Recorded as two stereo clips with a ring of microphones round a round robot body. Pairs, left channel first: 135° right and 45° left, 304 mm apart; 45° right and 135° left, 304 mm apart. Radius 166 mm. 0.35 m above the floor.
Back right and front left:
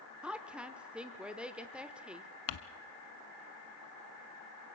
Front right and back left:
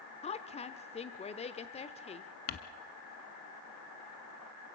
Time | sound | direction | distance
0.2 | a woman speaking | 35° right | 1.1 m
2.5 | crumpling | 105° right | 0.8 m